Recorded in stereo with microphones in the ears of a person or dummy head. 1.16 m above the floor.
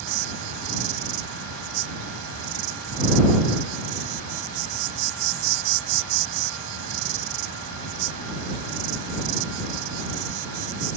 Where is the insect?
75° right (ahead or behind).